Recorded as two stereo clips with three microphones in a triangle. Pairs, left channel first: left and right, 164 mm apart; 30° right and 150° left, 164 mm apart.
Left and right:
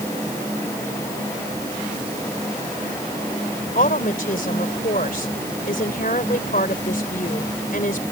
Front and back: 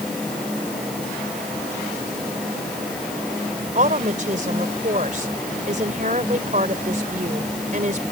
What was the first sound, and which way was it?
A woman speaking, 115° left.